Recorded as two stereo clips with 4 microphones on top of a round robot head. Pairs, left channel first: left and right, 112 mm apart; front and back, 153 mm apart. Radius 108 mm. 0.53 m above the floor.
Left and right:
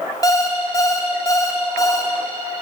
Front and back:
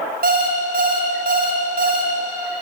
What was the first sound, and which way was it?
An alarm clock, 150° left.